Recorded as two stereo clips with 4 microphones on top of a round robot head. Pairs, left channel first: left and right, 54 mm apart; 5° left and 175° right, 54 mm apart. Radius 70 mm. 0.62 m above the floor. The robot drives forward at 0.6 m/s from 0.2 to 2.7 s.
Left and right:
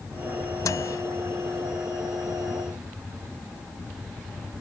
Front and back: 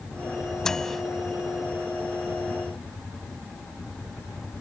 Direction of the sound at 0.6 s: 85° left.